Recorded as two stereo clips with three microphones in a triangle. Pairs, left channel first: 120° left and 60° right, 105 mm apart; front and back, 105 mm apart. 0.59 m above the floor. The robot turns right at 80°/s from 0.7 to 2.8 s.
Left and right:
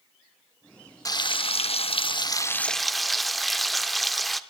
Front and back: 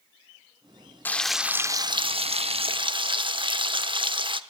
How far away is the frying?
About 0.9 m.